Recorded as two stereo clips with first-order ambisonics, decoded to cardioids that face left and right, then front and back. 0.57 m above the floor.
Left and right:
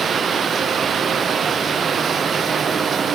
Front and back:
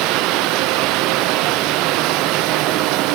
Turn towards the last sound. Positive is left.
turn(degrees=-155)